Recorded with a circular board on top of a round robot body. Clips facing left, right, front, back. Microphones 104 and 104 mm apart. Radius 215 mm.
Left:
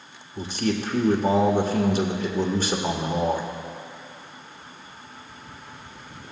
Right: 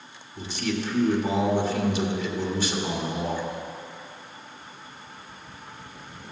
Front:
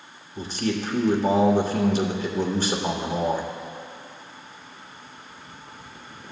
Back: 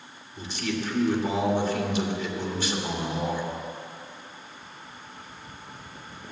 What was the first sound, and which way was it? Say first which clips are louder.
A man speaking: left 3 dB, front 4 dB; 50° left.